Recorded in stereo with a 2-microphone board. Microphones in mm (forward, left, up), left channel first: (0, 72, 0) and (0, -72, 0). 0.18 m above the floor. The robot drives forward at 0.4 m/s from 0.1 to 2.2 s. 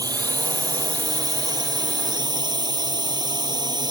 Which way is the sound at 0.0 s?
25° right (ahead or behind).